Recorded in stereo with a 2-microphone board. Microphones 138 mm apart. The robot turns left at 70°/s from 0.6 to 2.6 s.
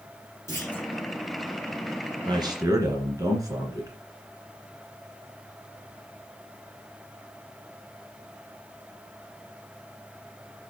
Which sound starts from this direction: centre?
A clunk, at 0.5 s.